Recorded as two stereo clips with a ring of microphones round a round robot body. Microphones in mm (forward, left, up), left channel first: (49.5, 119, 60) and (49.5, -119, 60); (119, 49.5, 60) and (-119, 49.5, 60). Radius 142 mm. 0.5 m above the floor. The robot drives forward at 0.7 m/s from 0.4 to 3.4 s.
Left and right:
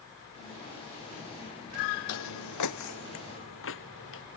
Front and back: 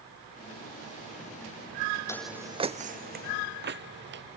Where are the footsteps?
75° left; by 4.2 s 135° left.